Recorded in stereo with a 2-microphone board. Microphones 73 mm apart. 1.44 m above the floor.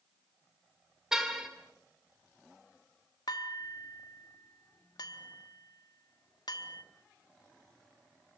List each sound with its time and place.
1.1 s a car horn: 5° right (ahead or behind), 2.5 m
3.3 s dishes clattering: 65° left (ahead or behind), 1.5 m